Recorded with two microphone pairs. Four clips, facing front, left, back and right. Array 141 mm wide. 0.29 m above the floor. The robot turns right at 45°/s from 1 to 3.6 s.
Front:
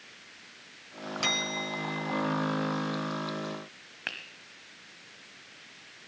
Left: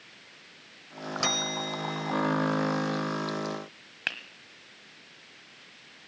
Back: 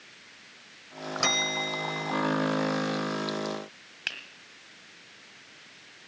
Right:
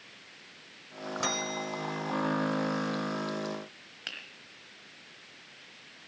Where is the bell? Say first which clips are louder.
Left 2 dB, back 4 dB; 155° left, 0.9 m; by 2.2 s 160° right, 0.9 m.